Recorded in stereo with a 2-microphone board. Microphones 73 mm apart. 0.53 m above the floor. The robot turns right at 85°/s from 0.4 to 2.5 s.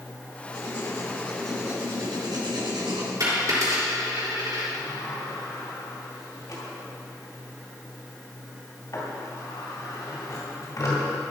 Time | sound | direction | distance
0.5 | writing | 100° left | 3 m
3.2 | a dropped coin | 50° right (ahead or behind) | 3.5 m
4.7 | a sliding door | 55° left (ahead or behind) | 2 m